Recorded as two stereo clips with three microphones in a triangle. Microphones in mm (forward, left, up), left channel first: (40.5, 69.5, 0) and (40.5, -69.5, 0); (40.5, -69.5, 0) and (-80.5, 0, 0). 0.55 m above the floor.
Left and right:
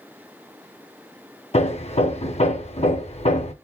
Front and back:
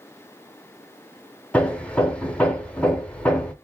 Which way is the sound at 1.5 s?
50° left.